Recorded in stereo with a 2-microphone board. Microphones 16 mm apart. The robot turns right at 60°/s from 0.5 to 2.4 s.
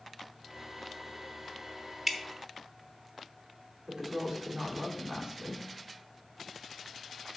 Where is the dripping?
5° right (ahead or behind), 0.9 m; by 2.2 s 10° right (ahead or behind), 0.9 m.